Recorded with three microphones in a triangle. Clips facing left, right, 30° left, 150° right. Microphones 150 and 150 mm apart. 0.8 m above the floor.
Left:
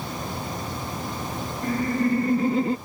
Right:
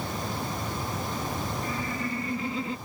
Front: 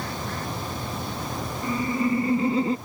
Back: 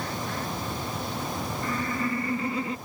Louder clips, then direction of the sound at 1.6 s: Left 9 dB, front 7 dB; 100° left.